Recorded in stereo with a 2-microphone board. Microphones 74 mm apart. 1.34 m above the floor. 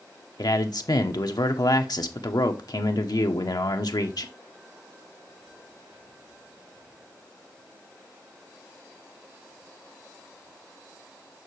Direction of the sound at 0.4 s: 70° left (ahead or behind).